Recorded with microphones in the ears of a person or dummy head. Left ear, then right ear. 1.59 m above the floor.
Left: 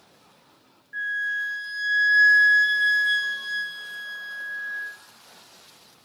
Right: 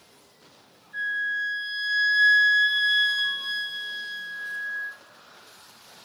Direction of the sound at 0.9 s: 45° left (ahead or behind).